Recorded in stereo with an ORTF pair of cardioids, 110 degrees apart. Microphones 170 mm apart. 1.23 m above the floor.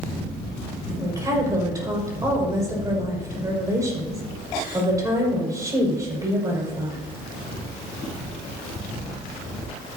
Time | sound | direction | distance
1.0 | a woman speaking | 20° right | 5.5 m